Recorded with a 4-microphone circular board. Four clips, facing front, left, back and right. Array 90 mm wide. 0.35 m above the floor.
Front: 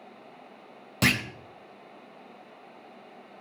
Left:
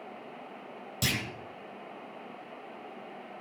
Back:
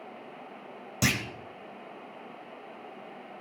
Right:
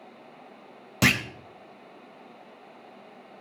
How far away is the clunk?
About 0.9 m.